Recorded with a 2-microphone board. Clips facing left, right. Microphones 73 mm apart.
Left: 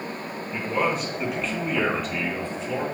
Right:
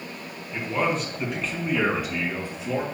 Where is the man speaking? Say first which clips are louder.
Even; 15° left (ahead or behind), 3 m; by 2.8 s 15° right (ahead or behind), 3.5 m.